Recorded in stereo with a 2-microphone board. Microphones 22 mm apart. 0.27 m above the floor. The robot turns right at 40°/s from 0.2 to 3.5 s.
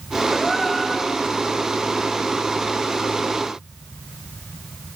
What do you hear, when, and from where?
0.3 s a gasp: 10° right, 4 m; by 1.2 s 25° left, 4 m